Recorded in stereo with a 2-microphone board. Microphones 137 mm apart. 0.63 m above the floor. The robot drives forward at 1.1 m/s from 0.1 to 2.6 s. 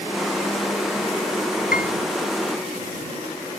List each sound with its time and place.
1.7 s a piano: 85° left